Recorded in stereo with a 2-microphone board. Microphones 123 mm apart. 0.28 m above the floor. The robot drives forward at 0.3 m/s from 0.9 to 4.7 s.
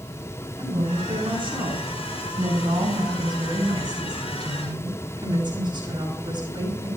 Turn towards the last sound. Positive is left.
turn(degrees=-40)  # may be behind; listen again after turning